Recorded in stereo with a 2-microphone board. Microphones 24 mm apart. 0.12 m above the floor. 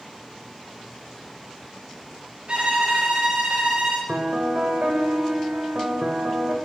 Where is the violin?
50° right (ahead or behind), 5.5 m.